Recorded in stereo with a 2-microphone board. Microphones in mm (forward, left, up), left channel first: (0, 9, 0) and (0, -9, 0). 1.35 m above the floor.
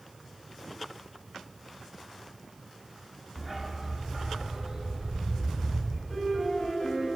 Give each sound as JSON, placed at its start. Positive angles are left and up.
{"t": 3.4, "sound": "a dog barking", "side_deg": 0, "distance_m": 0.9}
{"t": 6.1, "sound": "a piano", "side_deg": 10, "distance_m": 5.5}